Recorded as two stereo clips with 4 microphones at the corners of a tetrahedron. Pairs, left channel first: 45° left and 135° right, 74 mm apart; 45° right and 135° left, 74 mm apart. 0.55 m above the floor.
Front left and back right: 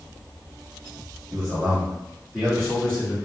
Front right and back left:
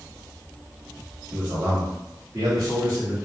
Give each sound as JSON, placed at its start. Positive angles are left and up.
{"t": 1.3, "sound": "a man speaking", "azimuth_deg": -160, "distance_m": 0.8}